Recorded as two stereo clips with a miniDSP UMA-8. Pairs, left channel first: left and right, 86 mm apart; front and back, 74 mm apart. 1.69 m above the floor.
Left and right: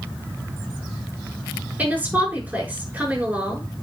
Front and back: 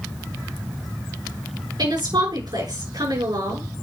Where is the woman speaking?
160° right, 6 m.